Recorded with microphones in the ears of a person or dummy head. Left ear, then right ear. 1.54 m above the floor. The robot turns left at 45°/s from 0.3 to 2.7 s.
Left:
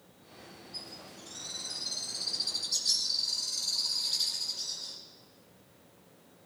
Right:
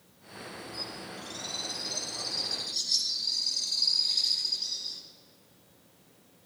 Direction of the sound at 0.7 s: 140° right.